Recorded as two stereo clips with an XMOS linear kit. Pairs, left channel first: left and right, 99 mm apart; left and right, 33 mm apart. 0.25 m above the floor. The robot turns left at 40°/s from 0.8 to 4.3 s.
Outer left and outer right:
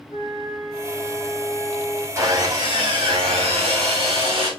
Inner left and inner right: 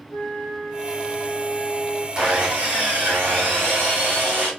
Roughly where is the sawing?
Ahead right.